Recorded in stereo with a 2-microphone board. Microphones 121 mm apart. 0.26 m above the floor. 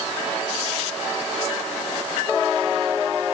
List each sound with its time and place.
Only background noise.